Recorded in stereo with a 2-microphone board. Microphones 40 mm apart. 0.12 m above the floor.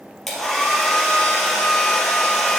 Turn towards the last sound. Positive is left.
turn(degrees=5)  # may be behind; listen again after turning